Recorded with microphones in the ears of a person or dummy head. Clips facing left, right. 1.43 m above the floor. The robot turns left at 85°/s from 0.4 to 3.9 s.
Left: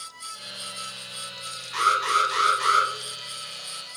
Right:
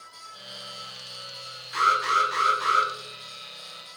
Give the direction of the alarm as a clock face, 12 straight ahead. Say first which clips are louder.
Even; 5 o'clock.